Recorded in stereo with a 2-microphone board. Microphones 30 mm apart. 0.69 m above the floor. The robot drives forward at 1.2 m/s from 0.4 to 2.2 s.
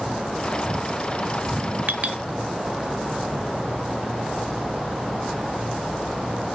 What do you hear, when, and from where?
1.9 s a clink: 65° right (ahead or behind), 0.6 m; by 2.2 s 40° right (ahead or behind), 0.9 m